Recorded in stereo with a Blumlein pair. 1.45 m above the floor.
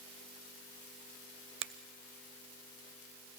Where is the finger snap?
35° right, 0.6 m.